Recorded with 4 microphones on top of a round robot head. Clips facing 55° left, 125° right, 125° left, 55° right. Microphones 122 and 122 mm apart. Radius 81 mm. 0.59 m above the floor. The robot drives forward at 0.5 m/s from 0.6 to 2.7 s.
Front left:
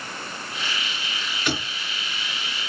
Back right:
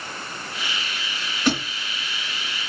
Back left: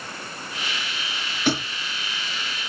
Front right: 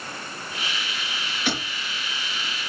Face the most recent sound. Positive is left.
turn(degrees=180)